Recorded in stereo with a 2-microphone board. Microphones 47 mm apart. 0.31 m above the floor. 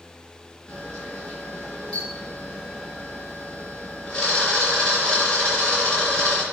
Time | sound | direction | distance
0.7 | a camera shutter | 20° left (ahead or behind) | 3.5 m